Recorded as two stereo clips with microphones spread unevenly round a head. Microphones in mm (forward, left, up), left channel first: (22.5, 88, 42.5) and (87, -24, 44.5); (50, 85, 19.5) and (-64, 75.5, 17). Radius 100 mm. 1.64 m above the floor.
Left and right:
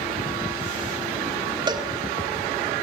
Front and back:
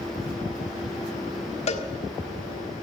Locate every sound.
1.7 s a cowbell: 10° right, 1.6 m